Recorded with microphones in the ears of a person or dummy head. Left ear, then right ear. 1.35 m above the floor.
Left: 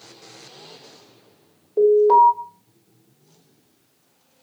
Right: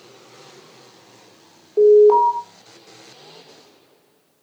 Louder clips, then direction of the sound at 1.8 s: Right 2 dB; 15° right (ahead or behind).